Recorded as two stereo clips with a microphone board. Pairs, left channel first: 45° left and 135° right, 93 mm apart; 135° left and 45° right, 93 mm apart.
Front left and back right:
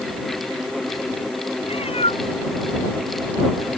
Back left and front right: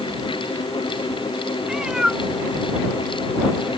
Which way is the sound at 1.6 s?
40° left.